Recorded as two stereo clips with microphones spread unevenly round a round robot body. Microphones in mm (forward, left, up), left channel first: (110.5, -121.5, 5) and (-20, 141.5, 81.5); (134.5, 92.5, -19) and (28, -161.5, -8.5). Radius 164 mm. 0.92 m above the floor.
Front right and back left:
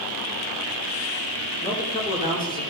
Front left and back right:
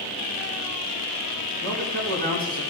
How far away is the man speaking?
About 4 m.